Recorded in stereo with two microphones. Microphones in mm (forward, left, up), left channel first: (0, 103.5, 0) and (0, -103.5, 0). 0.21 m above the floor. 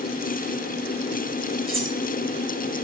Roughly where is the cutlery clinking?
Right.